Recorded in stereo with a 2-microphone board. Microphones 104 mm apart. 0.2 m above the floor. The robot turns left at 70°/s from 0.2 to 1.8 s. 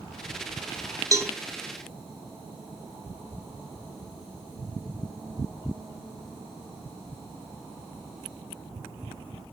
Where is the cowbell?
30° right (ahead or behind), 0.9 m; by 1.3 s 25° right (ahead or behind), 0.9 m.